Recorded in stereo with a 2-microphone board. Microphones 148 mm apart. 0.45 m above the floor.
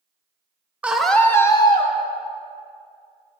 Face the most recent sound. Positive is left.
turn(degrees=35)  # may be behind; listen again after turning